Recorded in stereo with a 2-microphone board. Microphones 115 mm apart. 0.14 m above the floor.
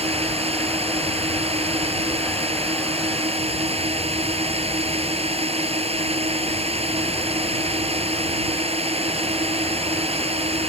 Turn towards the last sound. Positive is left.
turn(degrees=-60)  # may be behind; listen again after turning